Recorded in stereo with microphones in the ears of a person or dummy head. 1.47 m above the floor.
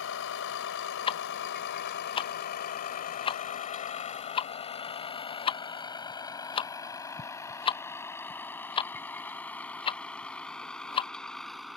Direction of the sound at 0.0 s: 75° left (ahead or behind).